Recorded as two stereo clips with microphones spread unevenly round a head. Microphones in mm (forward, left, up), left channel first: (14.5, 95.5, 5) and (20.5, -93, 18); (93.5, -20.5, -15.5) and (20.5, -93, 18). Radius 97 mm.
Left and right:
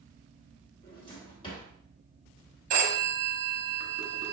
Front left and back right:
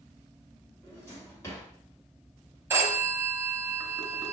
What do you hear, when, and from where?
0.8 s a drawer: 120° left, 1.5 m
2.7 s a phone ringing: 100° right, 1.1 m